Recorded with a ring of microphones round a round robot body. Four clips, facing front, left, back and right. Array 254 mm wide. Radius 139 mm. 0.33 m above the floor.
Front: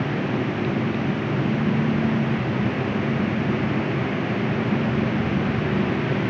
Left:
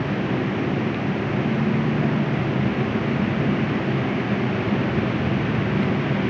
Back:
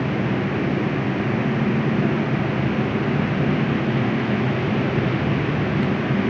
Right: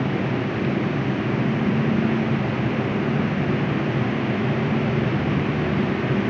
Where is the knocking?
No knocking in this recording.